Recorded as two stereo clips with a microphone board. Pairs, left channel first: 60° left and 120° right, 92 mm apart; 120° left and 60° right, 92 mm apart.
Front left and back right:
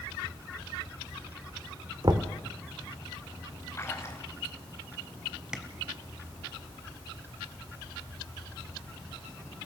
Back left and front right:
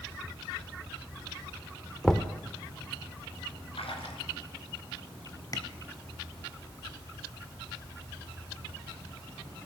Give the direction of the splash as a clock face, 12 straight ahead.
8 o'clock.